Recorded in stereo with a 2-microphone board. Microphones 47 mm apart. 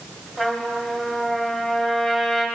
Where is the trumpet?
15° left (ahead or behind), 2 m.